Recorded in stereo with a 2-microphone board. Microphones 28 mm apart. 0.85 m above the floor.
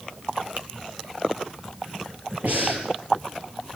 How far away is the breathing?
About 7.5 m.